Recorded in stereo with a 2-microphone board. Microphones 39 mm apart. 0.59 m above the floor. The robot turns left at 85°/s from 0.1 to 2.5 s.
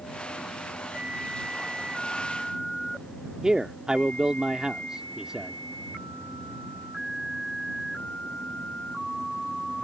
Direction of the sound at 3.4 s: 20° right (ahead or behind).